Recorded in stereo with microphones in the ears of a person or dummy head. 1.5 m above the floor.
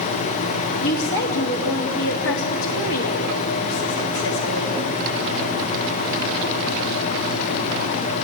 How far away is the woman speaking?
About 2.5 m.